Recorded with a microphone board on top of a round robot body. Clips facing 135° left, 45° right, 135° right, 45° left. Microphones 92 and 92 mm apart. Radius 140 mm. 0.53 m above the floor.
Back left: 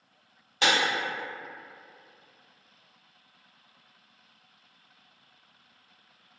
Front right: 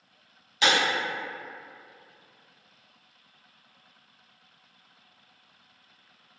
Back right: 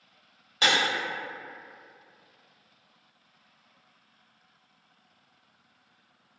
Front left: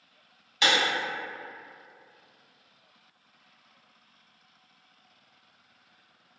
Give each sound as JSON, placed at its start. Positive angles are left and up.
{"t": 0.6, "sound": "breaking glass", "azimuth_deg": 175, "distance_m": 1.5}